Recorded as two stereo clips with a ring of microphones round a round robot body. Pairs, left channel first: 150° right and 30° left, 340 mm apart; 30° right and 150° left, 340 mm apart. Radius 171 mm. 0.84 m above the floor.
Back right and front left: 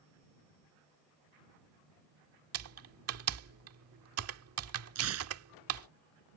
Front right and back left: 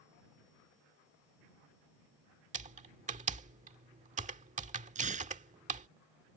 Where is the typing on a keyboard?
80° left.